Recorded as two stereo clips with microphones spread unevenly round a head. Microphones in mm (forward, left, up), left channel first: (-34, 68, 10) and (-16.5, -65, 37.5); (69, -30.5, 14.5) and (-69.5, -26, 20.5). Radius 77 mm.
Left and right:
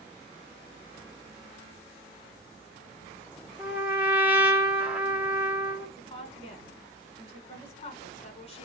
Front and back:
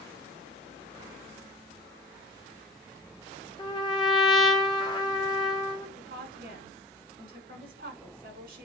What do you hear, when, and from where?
3.6 s a trumpet: 35° right, 1.3 m
6.0 s a woman speaking: 140° left, 6.5 m